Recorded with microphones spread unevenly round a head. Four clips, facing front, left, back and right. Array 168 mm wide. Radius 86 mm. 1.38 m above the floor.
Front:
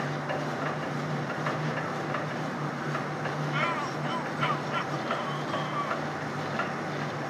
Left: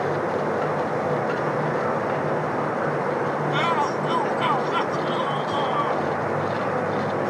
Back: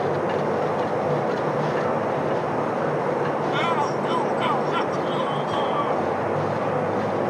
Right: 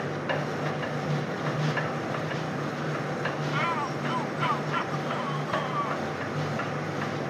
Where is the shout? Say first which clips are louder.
Left 7 dB, back 8 dB; 125° left.